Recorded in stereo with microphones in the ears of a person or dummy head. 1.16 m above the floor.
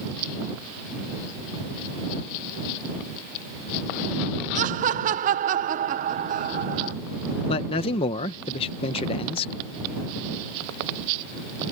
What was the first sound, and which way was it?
Laughter, 45° right (ahead or behind).